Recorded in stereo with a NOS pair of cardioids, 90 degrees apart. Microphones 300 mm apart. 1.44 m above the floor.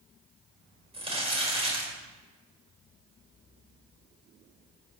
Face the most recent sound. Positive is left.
turn(degrees=-20)